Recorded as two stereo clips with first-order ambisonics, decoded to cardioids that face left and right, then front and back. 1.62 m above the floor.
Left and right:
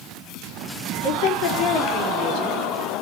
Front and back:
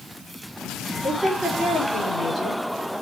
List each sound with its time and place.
1.0 s a woman speaking: 85° left, 4.5 m; by 2.9 s 75° left, 5.5 m